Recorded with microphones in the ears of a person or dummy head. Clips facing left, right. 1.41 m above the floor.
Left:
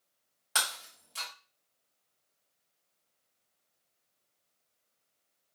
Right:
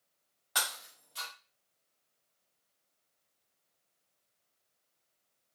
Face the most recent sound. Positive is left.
turn(degrees=40)  # may be behind; listen again after turning